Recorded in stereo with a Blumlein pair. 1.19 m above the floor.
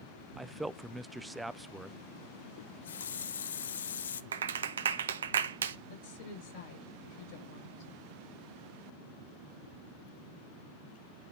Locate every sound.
0.4 s a man speaking: 10° right, 0.6 m
2.6 s a running tap: 65° left, 0.6 m
4.3 s a clap: 65° right, 0.7 m
5.9 s a woman speaking: 50° left, 6 m